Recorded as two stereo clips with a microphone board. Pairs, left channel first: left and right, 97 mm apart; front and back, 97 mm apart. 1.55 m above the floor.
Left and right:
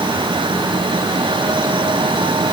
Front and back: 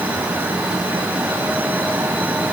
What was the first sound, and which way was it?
Only background noise.